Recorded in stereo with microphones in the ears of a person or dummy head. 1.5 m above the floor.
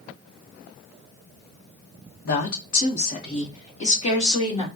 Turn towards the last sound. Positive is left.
turn(degrees=35)  # may be behind; listen again after turning